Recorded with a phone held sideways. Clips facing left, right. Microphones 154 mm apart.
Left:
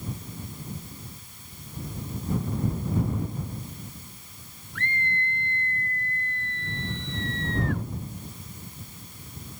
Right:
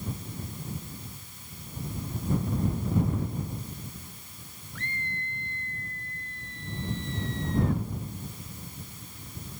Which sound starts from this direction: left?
A scream, at 4.8 s.